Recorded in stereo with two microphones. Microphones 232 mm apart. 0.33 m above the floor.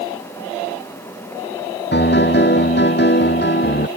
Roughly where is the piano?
Left.